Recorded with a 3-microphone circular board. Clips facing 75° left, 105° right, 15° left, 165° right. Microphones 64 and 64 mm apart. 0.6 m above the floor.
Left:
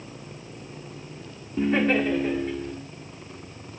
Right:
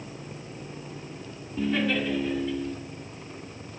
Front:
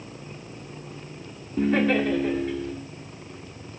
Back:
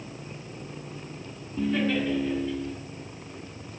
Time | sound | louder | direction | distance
1.6 | laughter | left 4 dB, front 4 dB | 25° left | 1.3 m